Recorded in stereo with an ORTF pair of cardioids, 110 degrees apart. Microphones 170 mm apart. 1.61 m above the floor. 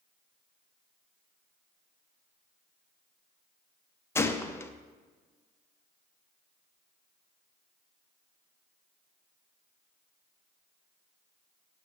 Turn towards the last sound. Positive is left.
turn(degrees=15)